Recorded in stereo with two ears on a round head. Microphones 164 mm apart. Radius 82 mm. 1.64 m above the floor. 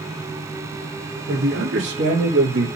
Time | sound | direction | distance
1.3 | a man speaking | 70° right (ahead or behind) | 3.5 m